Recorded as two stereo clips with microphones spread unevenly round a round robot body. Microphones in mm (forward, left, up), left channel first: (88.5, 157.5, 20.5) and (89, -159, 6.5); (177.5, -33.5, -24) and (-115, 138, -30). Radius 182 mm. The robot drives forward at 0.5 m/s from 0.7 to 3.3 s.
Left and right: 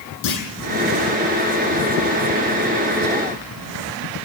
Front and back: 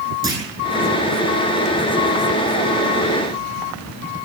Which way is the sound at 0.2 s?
70° left.